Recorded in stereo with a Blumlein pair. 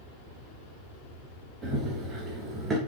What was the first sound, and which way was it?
Running footsteps, 15° right.